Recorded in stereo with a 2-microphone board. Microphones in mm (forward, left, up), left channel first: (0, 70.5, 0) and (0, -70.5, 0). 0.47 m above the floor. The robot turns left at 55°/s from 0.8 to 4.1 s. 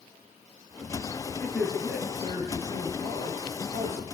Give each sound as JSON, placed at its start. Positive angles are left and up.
{"t": 1.4, "sound": "a man speaking", "azimuth_deg": 15, "distance_m": 8.5}